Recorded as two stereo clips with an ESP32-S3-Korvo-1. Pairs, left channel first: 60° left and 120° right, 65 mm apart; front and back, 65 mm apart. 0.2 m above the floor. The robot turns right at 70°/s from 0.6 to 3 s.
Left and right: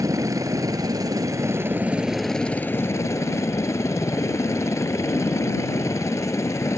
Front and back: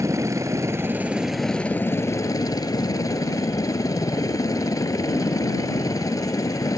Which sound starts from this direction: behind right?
A helicopter, at 0.0 s.